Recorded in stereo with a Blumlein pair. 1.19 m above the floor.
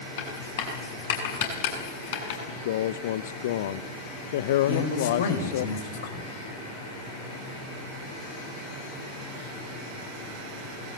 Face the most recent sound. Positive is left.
turn(degrees=60)